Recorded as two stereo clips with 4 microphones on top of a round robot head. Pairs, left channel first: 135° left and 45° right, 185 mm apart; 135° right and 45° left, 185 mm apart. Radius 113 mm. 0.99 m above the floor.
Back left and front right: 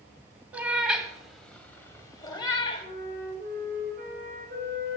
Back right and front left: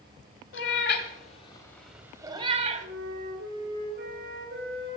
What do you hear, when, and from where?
0.5 s a cat meowing: 125° right, 1.1 m; by 2.9 s 75° left, 1.0 m
2.8 s a flute: 5° left, 3 m